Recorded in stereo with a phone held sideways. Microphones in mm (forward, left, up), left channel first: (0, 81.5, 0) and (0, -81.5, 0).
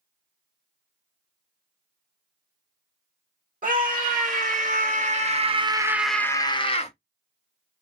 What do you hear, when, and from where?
3.6 s a scream: 55° right (ahead or behind), 1.8 m; by 6.9 s 40° left (ahead or behind), 0.8 m